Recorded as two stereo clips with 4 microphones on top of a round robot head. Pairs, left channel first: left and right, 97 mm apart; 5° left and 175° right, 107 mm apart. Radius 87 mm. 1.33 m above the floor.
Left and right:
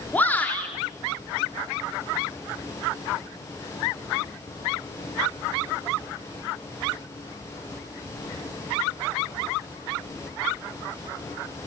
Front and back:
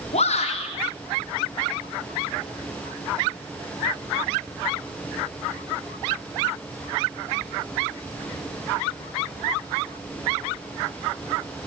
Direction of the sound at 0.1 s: 20° left.